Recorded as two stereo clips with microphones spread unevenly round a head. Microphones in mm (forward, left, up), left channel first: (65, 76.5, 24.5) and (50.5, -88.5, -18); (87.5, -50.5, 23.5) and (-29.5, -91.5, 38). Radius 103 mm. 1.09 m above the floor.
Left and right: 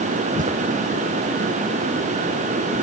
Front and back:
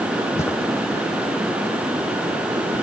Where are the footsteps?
50° right, 3.5 m.